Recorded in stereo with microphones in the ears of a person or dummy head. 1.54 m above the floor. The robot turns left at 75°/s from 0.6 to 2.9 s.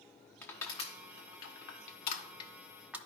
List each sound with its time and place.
0.4 s crushing: 15° left (ahead or behind), 1.1 m; by 3.0 s 10° right (ahead or behind), 1.1 m